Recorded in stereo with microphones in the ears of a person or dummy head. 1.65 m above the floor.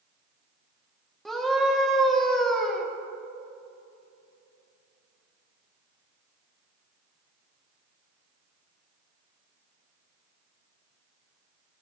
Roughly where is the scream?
Centre.